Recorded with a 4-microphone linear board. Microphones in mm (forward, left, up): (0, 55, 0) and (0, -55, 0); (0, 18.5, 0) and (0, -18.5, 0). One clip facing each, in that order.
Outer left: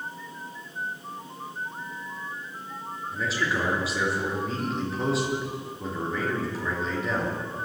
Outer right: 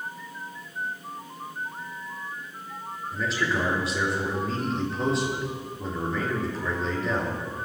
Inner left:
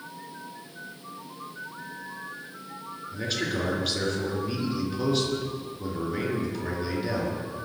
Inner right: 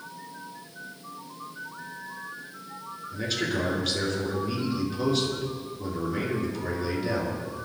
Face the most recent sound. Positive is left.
turn(degrees=0)  # may be behind; listen again after turning